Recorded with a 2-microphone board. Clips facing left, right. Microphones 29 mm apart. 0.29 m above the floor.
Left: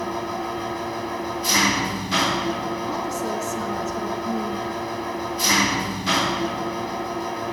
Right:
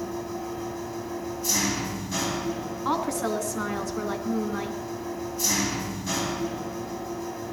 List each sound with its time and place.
0.0 s an engine running: 55° left (ahead or behind), 0.8 m
2.9 s a woman speaking: 65° right (ahead or behind), 3.5 m